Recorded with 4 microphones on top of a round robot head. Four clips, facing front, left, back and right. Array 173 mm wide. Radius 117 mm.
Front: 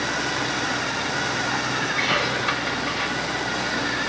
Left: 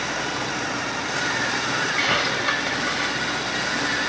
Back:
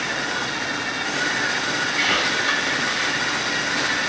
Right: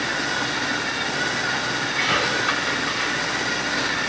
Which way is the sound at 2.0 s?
55° left.